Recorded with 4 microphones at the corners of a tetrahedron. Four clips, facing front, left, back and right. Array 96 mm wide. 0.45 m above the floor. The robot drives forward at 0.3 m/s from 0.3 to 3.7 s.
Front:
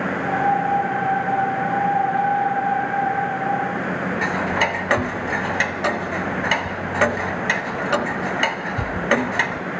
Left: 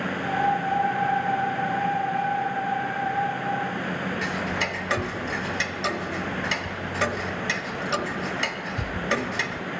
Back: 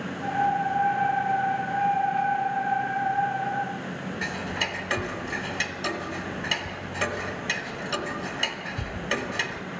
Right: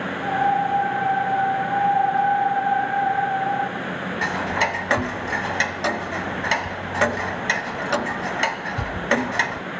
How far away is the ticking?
About 0.7 m.